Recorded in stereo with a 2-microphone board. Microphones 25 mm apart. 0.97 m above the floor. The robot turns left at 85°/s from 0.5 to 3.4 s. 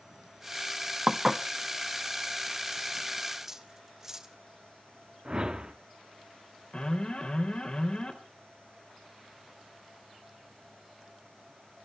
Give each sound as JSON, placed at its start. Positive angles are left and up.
{"t": 1.1, "sound": "dishes clattering", "side_deg": -25, "distance_m": 0.8}
{"t": 3.4, "sound": "cutlery clinking", "side_deg": -15, "distance_m": 1.1}
{"t": 5.2, "sound": "a whoosh", "side_deg": -30, "distance_m": 1.3}
{"t": 6.7, "sound": "an alarm", "side_deg": 40, "distance_m": 2.5}